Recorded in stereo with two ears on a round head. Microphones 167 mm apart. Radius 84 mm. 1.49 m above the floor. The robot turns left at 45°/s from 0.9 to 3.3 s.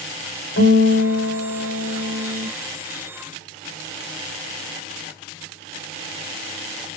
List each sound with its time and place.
0.6 s a guitar: 100° left, 2.5 m; by 2.5 s 30° left, 2.5 m